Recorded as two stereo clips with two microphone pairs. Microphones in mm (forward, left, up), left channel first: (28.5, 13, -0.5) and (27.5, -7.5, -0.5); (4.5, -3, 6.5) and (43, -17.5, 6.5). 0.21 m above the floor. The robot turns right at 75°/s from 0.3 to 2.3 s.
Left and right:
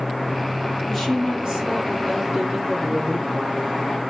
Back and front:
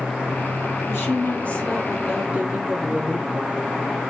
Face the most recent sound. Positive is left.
turn(degrees=-80)